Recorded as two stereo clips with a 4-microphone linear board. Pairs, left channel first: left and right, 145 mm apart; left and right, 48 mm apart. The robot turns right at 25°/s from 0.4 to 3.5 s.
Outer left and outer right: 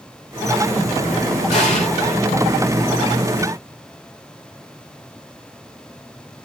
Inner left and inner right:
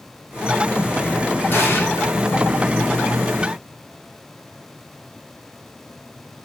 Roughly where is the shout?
I don't hear a shout.